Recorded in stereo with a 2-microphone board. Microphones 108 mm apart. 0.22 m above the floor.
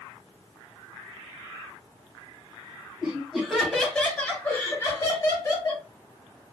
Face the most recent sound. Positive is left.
turn(degrees=35)  # may be behind; listen again after turning